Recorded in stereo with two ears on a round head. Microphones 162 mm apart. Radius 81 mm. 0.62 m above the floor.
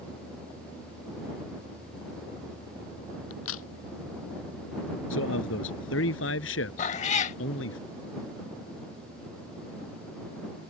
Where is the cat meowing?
40° left (ahead or behind).